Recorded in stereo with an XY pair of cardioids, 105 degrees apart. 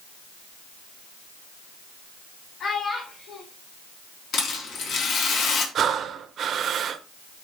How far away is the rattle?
About 4 m.